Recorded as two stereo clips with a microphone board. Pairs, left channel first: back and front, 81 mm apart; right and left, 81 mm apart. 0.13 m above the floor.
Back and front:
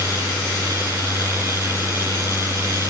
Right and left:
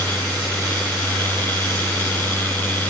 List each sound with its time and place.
Only background noise.